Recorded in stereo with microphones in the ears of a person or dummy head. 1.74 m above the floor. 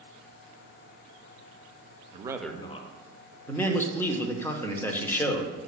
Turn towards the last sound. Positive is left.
turn(degrees=15)  # may be behind; listen again after turning